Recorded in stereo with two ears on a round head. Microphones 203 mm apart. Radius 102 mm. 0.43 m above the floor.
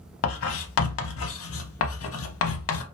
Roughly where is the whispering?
No whispering in this recording.